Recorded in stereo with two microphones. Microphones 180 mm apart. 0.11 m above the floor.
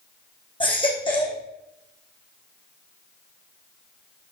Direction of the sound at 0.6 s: 30° left (ahead or behind).